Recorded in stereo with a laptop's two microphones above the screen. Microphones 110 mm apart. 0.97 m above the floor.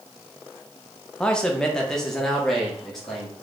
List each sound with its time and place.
1.2 s a man speaking: 10° left (ahead or behind), 0.5 m; by 3.3 s 5° left (ahead or behind), 1.6 m